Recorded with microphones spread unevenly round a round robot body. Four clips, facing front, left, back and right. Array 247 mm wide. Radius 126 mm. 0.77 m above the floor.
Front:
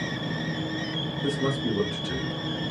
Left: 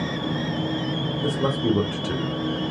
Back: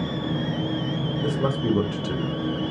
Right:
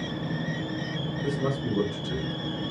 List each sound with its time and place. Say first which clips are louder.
1.2 s a man speaking: left 6 dB, back 2 dB; 130° left, 1.3 m; by 2.7 s 80° left, 1.1 m